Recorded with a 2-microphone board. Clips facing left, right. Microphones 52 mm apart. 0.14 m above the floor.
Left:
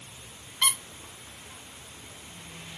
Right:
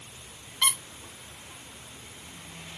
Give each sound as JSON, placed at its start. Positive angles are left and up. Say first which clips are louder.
{"t": 0.6, "sound": "a squeak", "louder": "even", "side_deg": 10, "distance_m": 1.0}